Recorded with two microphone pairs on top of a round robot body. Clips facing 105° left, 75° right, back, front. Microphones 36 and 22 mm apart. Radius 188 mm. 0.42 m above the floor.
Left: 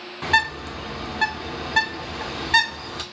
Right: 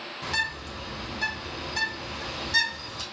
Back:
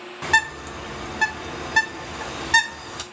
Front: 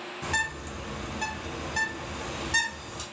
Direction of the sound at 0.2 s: 140° left.